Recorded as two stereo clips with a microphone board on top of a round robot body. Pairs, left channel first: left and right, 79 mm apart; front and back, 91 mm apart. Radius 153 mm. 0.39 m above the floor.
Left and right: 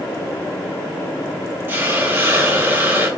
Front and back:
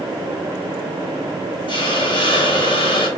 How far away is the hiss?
About 1.2 m.